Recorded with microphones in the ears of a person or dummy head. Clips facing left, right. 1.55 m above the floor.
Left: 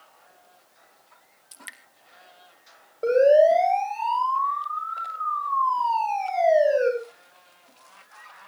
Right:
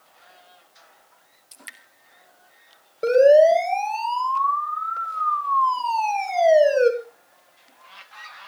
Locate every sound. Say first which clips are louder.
1.5 s dripping: even; centre (ahead or behind), 1.8 m
3.0 s a siren: right 3 dB; 30° right (ahead or behind), 6.5 m; by 6.9 s 55° right (ahead or behind), 5 m